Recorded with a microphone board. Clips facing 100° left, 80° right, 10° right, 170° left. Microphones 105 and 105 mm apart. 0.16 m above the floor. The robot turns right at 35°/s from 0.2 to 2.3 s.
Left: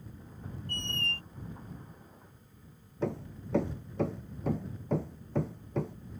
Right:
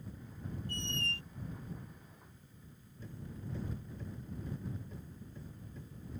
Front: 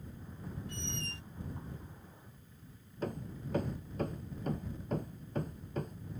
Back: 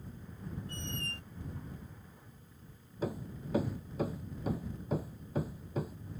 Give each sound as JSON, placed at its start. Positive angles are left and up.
{"t": 0.7, "sound": "a squeak", "azimuth_deg": 120}
{"t": 3.0, "sound": "hammering", "azimuth_deg": 85}